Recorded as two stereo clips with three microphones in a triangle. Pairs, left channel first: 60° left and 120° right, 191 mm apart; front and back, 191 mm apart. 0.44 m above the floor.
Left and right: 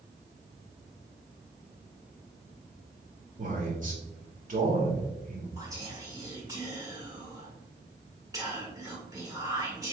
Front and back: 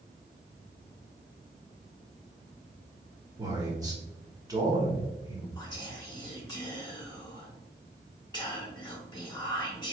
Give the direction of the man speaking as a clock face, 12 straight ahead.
4 o'clock.